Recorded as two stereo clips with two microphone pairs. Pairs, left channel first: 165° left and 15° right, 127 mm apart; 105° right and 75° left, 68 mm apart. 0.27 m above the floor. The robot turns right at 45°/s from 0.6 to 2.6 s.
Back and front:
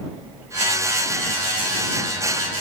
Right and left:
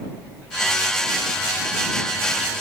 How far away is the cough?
No cough in this recording.